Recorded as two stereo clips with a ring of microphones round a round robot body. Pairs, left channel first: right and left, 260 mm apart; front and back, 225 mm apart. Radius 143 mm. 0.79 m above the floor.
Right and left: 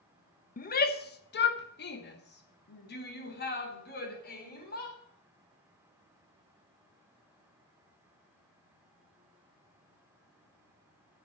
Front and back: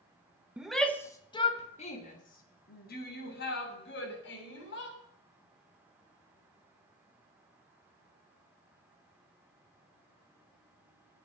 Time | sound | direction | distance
0.6 | a shout | 100° right | 1.1 m